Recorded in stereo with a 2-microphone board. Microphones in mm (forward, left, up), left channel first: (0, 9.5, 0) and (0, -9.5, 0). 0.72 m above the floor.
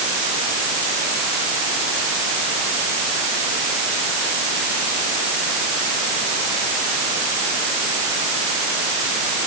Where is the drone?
I don't hear a drone.